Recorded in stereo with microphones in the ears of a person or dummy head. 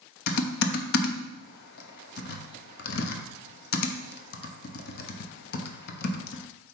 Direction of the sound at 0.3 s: 55° left (ahead or behind).